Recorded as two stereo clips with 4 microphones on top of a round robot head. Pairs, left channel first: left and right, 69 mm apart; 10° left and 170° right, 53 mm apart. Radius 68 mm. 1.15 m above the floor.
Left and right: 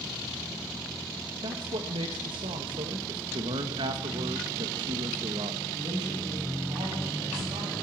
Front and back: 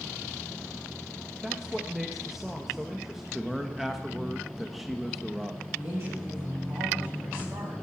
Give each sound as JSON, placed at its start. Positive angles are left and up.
{"t": 1.4, "sound": "a man speaking", "azimuth_deg": -85, "distance_m": 1.1}
{"t": 3.3, "sound": "a man speaking", "azimuth_deg": -80, "distance_m": 1.4}
{"t": 5.7, "sound": "a woman speaking", "azimuth_deg": -115, "distance_m": 8.5}